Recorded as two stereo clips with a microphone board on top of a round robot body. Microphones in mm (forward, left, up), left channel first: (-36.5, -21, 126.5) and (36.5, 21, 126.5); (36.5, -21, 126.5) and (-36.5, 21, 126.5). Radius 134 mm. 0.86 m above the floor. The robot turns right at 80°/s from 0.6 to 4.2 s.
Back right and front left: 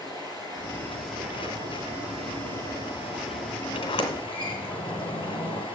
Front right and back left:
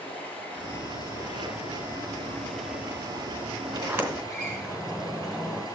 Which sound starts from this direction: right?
Running water, at 0.0 s.